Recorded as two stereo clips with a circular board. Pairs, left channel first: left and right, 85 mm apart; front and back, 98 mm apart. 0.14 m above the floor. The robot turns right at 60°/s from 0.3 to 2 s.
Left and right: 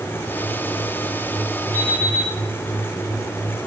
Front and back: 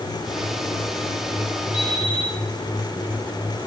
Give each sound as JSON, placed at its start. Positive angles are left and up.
{"t": 1.7, "sound": "an alarm clock", "azimuth_deg": -40, "distance_m": 6.0}